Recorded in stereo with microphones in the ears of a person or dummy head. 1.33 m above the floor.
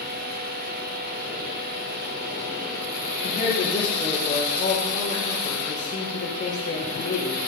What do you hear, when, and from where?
0.0 s a fan: 55° right (ahead or behind), 1.2 m
3.2 s a man speaking: 60° left (ahead or behind), 5 m